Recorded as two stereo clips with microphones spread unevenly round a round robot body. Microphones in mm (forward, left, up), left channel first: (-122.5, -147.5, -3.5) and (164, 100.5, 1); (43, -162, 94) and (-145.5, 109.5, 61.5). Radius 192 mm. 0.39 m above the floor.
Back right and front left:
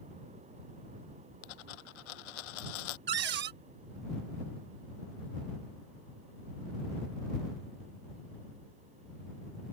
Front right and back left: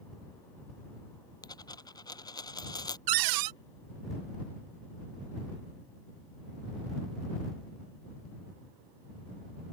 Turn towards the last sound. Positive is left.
turn(degrees=105)